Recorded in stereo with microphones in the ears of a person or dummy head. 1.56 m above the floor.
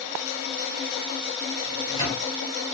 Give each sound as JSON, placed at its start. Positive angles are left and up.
{"t": 1.6, "sound": "a microwave", "side_deg": 25, "distance_m": 1.6}